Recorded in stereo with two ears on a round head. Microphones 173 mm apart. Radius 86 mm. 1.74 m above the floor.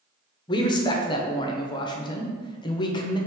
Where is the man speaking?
25° left (ahead or behind), 0.6 m.